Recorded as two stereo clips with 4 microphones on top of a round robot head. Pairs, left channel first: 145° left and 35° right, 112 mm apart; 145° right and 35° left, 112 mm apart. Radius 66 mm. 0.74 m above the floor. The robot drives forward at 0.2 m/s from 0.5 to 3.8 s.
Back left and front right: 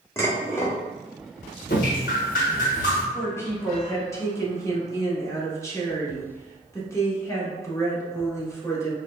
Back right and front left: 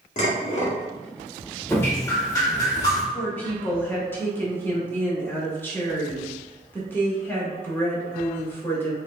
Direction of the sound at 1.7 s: 145° left.